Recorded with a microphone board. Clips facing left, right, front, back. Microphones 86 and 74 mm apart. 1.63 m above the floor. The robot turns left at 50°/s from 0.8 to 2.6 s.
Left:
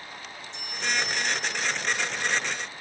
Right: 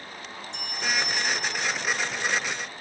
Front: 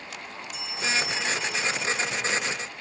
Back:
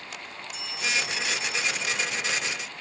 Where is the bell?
75° right, 2.5 m; by 2.2 s 140° right, 2.5 m.